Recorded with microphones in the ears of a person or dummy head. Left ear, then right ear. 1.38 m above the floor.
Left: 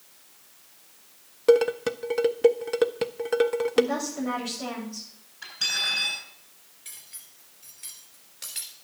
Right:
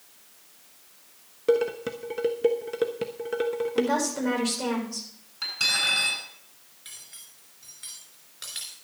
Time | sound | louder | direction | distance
1.5 | dishes clattering | left 4 dB | 25° left (ahead or behind) | 0.5 m
3.8 | a woman speaking | even | 75° right (ahead or behind) | 6.5 m
5.4 | cutlery clinking | right 2 dB | 75° right (ahead or behind) | 10 m
6.8 | cutlery clinking | right 2 dB | 10° left (ahead or behind) | 3 m